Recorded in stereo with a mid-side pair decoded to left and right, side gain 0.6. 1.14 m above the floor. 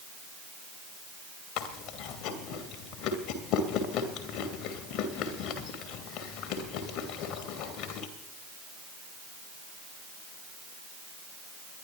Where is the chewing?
65° left, 2.5 m.